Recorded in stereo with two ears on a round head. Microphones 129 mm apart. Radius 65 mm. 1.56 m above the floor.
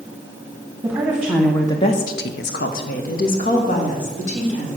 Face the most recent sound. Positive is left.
turn(degrees=50)  # may be behind; listen again after turning